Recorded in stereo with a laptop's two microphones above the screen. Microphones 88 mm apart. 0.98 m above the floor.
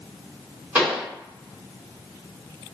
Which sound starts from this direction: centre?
A pop, at 0.8 s.